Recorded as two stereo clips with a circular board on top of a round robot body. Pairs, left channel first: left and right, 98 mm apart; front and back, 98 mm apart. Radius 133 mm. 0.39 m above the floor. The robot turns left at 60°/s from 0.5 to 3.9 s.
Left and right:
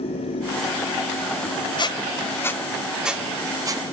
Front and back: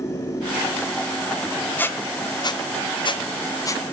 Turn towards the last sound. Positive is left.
turn(degrees=-60)